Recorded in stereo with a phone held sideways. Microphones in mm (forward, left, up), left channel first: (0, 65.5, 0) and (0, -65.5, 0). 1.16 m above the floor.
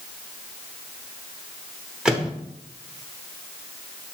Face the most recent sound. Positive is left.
turn(degrees=-5)  # may be behind; listen again after turning